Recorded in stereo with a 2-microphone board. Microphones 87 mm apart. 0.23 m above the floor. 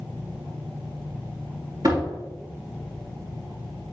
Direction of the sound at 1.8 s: 50° right (ahead or behind).